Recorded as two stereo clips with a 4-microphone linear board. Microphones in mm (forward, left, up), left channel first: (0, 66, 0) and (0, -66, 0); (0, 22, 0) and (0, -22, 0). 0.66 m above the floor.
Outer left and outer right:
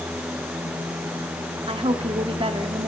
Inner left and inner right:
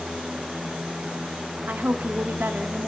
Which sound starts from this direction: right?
A woman speaking, at 1.7 s.